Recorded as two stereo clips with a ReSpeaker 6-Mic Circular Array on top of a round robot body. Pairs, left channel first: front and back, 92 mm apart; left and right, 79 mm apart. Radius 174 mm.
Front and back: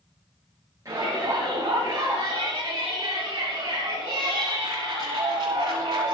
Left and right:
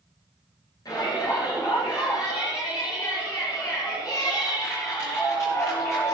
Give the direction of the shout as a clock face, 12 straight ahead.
8 o'clock.